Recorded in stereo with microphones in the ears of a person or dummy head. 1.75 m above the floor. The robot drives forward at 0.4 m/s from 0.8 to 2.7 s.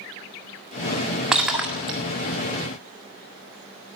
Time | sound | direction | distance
1.3 | breaking glass | 5° right (ahead or behind) | 1.6 m